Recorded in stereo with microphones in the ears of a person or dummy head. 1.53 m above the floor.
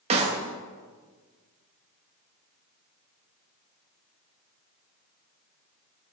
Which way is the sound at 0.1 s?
35° right (ahead or behind).